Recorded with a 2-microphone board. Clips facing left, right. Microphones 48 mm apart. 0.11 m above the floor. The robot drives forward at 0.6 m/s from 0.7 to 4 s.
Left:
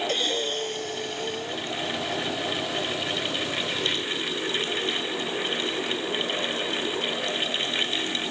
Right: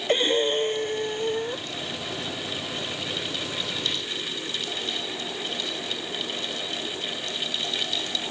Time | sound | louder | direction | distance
0.1 | breathing | right 5 dB | 25° right (ahead or behind) | ?